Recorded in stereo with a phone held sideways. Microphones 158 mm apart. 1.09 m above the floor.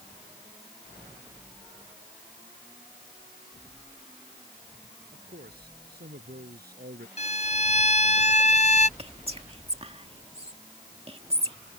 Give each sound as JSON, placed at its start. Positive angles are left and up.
{"t": 5.1, "sound": "a man speaking", "side_deg": -85}
{"t": 7.2, "sound": "a violin", "side_deg": 45}
{"t": 9.0, "sound": "whispering", "side_deg": -40}